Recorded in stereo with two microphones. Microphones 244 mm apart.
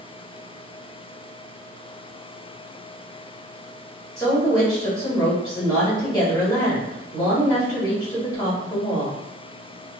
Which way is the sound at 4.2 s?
15° left (ahead or behind).